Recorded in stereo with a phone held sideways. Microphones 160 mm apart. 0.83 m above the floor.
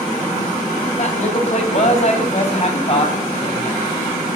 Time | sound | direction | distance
1.0 | a man speaking | 50° left (ahead or behind) | 7 m